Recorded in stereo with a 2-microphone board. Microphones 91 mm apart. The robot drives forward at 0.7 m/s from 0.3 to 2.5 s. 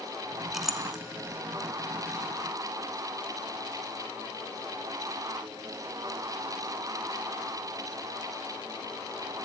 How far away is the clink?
About 1.2 m.